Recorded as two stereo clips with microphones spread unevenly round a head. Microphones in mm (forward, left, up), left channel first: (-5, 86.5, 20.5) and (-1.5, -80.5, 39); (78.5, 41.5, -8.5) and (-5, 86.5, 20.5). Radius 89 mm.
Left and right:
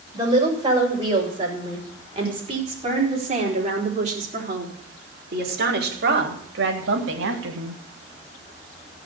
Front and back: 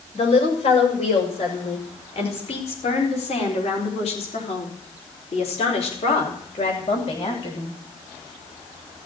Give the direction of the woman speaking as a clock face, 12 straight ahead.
1 o'clock.